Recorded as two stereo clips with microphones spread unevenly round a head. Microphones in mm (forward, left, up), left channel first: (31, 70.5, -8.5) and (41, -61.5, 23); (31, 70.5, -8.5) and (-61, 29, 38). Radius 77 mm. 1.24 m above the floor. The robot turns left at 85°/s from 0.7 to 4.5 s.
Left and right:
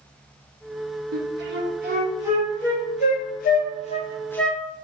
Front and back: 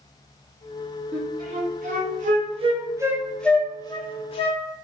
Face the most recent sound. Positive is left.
turn(degrees=10)